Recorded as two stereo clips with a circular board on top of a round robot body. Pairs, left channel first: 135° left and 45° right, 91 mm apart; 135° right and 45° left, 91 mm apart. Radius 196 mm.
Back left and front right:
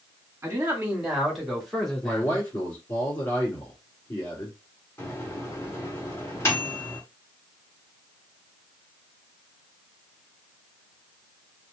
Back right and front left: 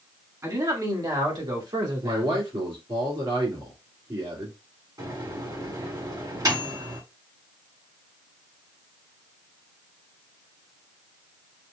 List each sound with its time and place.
0.4 s a man speaking: 10° left, 1.6 m; by 2.4 s 60° left, 2 m
2.0 s a man speaking: 75° left, 2 m
5.0 s a microwave: 75° left, 1.9 m